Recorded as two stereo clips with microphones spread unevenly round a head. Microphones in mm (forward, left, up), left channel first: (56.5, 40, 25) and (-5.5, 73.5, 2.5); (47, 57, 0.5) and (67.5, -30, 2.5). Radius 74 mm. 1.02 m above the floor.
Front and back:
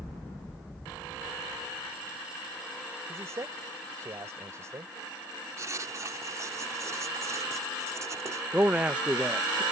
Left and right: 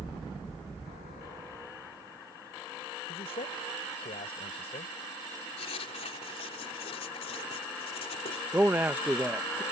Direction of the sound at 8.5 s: 150° right.